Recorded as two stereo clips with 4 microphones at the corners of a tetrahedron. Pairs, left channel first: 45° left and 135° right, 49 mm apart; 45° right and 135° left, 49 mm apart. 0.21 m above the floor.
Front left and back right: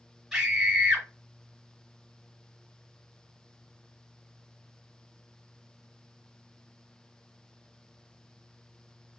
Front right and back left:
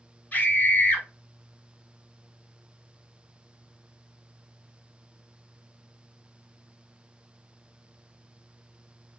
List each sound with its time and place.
0.3 s a scream: 55° right, 1.6 m